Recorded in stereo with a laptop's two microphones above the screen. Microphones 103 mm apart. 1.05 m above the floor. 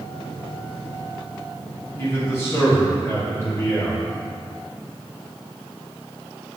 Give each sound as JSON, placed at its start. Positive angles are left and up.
{"t": 2.0, "sound": "a man speaking", "side_deg": 25, "distance_m": 2.0}